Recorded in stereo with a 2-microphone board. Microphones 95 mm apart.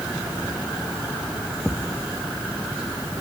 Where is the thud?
5° right (ahead or behind).